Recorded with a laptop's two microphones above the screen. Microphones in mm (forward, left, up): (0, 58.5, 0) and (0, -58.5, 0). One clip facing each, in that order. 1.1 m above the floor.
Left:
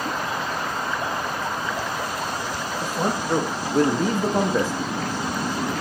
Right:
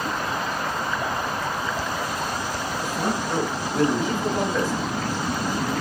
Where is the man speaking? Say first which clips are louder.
Left 2 dB; 30° left (ahead or behind), 1.3 m; by 4.7 s 25° left (ahead or behind), 0.8 m.